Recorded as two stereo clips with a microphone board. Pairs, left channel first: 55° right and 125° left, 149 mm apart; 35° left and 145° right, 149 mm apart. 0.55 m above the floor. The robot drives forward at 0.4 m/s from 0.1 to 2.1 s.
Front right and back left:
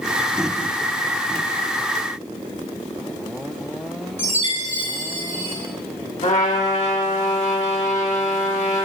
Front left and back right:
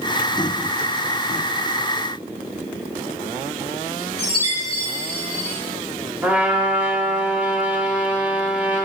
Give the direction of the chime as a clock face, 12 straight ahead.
7 o'clock.